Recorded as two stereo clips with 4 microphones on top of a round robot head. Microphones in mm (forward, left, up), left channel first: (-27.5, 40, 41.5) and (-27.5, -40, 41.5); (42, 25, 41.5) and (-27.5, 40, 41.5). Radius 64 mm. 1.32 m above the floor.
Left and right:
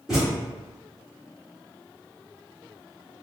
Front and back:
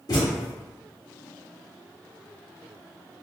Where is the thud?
10° right, 1.1 m.